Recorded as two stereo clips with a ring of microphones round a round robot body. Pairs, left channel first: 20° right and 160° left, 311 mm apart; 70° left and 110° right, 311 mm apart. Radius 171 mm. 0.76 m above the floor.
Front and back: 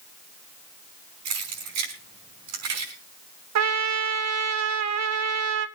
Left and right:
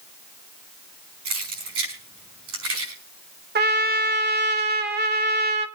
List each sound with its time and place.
1.2 s keys jangling: 160° right, 5.5 m
3.5 s a trumpet: 170° right, 1.3 m